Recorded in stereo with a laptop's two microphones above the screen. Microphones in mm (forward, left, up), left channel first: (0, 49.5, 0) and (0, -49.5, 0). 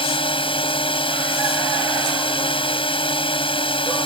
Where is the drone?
70° left (ahead or behind).